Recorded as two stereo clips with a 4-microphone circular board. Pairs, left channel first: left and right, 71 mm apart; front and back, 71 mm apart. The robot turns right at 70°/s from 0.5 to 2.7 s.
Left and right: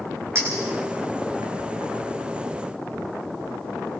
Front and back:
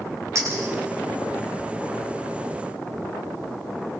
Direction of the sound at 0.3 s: 140° right.